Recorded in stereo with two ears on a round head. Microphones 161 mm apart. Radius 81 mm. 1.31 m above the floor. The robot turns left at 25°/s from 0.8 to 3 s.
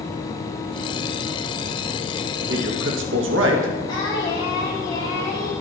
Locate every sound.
2.5 s a man speaking: 65° right (ahead or behind), 2.0 m; by 3.7 s 75° right (ahead or behind), 2.0 m
3.9 s singing: 25° left (ahead or behind), 4.5 m